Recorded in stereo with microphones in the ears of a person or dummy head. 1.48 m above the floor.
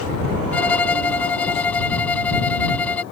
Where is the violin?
10° left (ahead or behind).